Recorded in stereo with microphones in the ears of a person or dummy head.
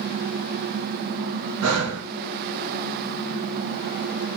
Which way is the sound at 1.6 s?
85° right.